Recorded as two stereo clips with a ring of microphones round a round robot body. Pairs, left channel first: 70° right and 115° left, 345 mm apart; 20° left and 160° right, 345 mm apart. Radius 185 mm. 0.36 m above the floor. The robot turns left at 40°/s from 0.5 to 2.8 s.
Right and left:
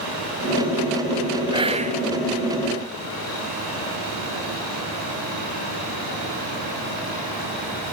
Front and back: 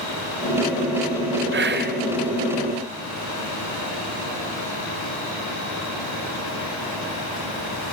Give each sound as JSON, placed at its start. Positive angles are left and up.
{"t": 1.5, "sound": "whispering", "azimuth_deg": 180, "distance_m": 1.1}